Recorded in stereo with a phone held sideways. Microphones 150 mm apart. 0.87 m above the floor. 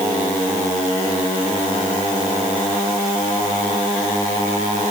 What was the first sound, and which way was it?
Only background noise.